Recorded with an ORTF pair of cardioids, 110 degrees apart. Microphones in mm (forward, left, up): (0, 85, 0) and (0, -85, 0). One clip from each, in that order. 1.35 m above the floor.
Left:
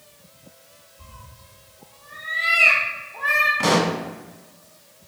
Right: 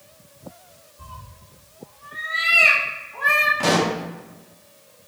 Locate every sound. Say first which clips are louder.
1.0 s a cat meowing: right 6 dB; 25° right, 1.8 m
3.6 s a pop: even; 5° left, 0.9 m